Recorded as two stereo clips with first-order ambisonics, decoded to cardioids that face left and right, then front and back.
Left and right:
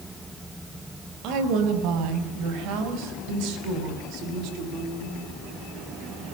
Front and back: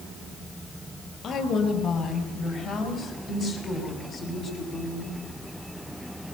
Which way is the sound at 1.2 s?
60° right.